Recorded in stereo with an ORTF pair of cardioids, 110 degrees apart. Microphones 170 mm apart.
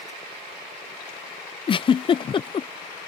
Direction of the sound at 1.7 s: 30° left.